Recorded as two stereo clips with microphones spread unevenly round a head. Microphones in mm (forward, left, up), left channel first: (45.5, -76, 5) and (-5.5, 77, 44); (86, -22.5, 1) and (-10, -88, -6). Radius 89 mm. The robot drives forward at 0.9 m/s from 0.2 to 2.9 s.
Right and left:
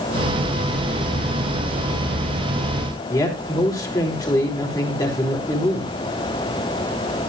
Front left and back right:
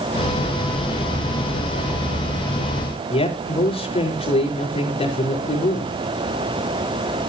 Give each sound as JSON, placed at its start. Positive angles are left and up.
{"t": 3.1, "sound": "a man speaking", "azimuth_deg": 0, "distance_m": 5.5}